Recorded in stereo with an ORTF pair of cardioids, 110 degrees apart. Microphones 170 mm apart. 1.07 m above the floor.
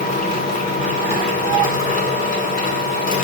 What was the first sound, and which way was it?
A machine running, 50° left.